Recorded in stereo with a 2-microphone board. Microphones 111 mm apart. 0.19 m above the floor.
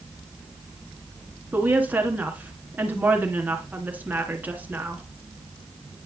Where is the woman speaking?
15° right (ahead or behind), 1.8 m.